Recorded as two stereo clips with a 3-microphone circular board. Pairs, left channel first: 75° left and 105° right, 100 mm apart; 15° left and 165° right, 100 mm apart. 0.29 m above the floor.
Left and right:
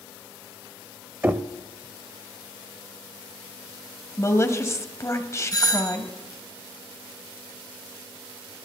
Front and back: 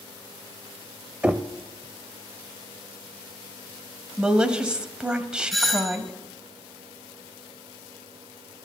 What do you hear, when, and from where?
1.2 s knocking: 120° right, 0.6 m
4.2 s a woman speaking: 120° left, 1.3 m
5.5 s a doorbell: 105° left, 1.8 m